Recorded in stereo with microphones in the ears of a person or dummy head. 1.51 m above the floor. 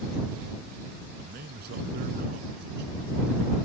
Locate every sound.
1.2 s a man speaking: 60° right (ahead or behind)